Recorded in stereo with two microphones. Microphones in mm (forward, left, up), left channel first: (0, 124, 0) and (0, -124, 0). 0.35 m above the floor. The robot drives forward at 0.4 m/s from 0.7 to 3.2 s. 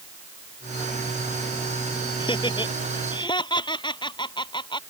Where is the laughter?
20° left (ahead or behind).